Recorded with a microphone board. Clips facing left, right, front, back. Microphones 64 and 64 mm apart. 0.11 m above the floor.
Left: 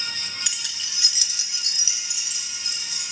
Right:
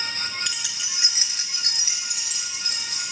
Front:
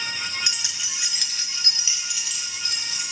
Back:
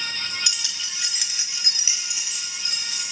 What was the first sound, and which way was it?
Keys jangling, 15° left.